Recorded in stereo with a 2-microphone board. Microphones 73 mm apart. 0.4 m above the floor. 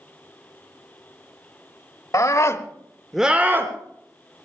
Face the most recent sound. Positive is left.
turn(degrees=-35)  # may be behind; listen again after turning